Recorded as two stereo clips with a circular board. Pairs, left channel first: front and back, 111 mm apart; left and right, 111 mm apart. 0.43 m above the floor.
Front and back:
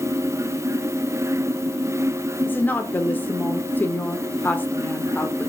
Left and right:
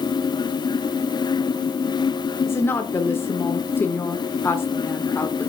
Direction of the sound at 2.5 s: 50° left.